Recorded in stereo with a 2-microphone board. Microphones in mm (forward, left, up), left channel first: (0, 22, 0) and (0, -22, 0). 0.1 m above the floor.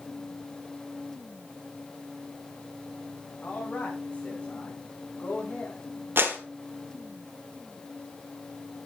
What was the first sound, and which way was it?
A man speaking, 35° left (ahead or behind).